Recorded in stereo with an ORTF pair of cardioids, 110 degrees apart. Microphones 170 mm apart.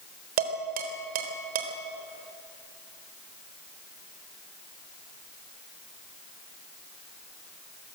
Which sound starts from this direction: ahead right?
Dishes clattering, at 0.4 s.